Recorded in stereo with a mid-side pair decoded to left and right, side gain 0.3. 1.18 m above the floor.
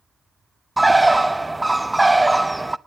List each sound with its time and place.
0.8 s a bird: 15° right, 0.7 m